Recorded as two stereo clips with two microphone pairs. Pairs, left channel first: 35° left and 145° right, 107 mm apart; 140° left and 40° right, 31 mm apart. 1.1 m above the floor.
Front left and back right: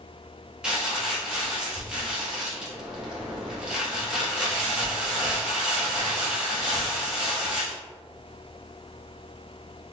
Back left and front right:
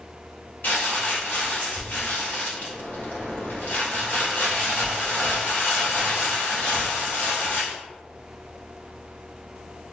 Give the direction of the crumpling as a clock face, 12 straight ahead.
8 o'clock.